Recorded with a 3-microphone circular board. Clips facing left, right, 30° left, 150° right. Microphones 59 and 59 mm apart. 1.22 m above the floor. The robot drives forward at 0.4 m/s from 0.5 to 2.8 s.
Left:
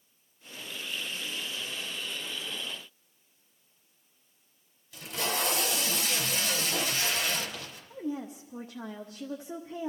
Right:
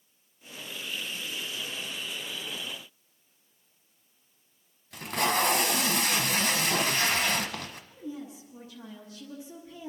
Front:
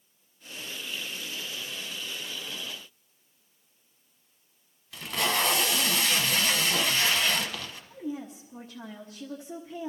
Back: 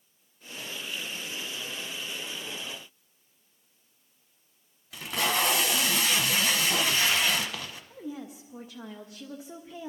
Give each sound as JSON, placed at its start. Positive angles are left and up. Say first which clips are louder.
{"t": 4.9, "sound": "tape being pulled", "louder": "right 6 dB, even", "azimuth_deg": -75, "distance_m": 1.0}
{"t": 7.9, "sound": "a woman speaking", "louder": "left 7 dB, front 5 dB", "azimuth_deg": 130, "distance_m": 1.0}